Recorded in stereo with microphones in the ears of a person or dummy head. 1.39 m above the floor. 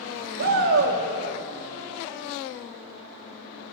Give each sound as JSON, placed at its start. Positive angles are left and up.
{"t": 0.4, "sound": "a shout", "side_deg": -65, "distance_m": 2.5}